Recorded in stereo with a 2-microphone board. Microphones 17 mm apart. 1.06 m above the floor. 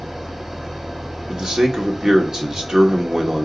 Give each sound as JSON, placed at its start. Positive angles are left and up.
{"t": 0.0, "sound": "an engine running", "side_deg": -25, "distance_m": 3.0}
{"t": 1.3, "sound": "a man speaking", "side_deg": -35, "distance_m": 2.5}